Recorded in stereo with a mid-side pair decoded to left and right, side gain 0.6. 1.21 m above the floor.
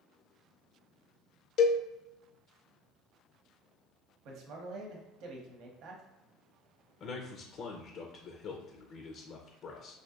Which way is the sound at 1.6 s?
55° left.